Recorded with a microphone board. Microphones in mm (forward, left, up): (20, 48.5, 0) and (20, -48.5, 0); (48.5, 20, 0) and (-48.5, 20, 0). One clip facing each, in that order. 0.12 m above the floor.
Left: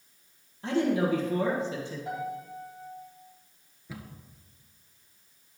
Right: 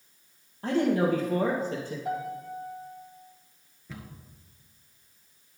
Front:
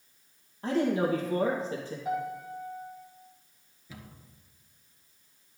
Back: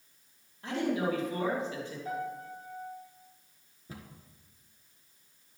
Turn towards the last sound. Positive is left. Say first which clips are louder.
# even, back 1 dB
turn(degrees=165)